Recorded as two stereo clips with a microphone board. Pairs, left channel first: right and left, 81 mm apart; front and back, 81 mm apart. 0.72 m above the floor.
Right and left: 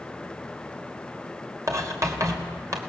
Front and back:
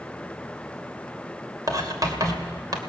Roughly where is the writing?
Behind left.